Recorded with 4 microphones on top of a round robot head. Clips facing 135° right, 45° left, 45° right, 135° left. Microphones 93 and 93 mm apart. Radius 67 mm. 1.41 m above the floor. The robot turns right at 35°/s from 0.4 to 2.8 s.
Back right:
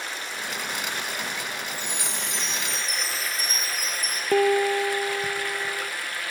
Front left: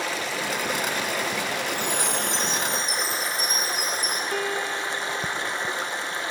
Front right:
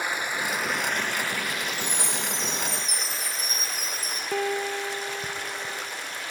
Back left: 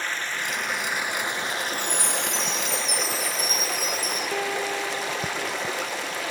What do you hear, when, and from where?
0.0 s running water: 30° left, 1.1 m; by 6.3 s 115° left, 1.1 m
1.7 s a chime: 90° left, 9 m; by 4.2 s 125° left, 9 m
4.3 s a piano: 135° right, 0.7 m